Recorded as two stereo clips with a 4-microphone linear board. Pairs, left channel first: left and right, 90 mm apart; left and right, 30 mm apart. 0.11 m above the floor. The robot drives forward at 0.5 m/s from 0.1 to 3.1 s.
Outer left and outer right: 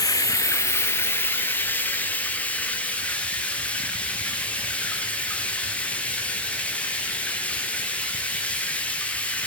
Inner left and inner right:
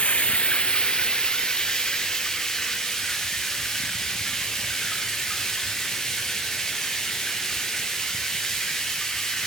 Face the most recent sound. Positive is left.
turn(degrees=15)  # may be behind; listen again after turning